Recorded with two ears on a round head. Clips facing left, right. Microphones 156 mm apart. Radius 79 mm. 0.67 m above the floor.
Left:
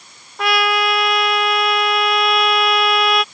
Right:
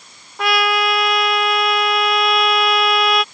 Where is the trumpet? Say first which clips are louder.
Even; centre (ahead or behind).